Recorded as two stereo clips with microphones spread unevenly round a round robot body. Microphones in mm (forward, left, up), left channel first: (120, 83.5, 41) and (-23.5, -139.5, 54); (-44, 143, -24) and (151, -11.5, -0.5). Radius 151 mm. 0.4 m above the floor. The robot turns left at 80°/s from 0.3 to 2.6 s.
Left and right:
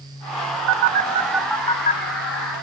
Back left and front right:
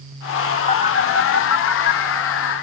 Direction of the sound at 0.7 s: 155° right.